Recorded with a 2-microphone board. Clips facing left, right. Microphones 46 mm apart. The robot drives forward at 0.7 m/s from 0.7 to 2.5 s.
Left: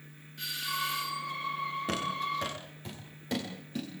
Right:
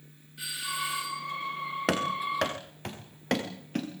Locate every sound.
0.4 s a doorbell: 5° right (ahead or behind), 3 m
1.9 s running footsteps: 80° right, 5.5 m; by 3.9 s 60° right (ahead or behind), 6.5 m